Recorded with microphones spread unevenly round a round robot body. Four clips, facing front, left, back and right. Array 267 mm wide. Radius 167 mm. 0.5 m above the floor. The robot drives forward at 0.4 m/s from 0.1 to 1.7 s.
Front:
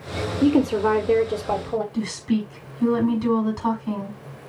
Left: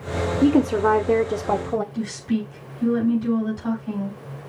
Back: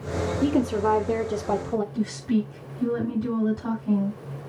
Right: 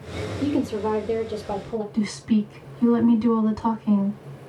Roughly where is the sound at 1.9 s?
Right.